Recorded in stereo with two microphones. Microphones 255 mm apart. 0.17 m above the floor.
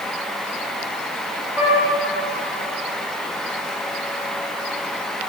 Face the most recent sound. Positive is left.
turn(degrees=-10)  # may be behind; listen again after turning